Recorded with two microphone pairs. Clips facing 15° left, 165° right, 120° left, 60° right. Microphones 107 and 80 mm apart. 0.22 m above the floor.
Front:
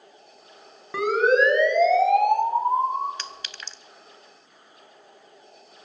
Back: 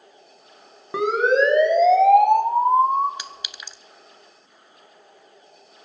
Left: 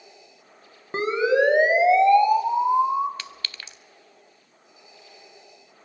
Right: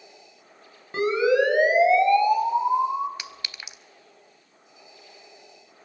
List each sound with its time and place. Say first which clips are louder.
0.9 s a siren: back 1 dB, even; 150° left, 2 m; by 3.1 s 170° right, 3 m
3.2 s a clink: even, left 1 dB; 100° right, 0.6 m